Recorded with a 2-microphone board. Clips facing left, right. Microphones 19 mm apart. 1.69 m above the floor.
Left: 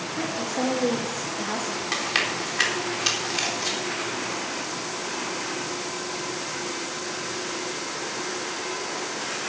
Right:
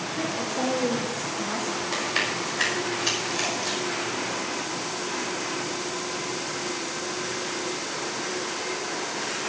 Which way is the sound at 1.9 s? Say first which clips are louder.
Left 2 dB; 60° left (ahead or behind).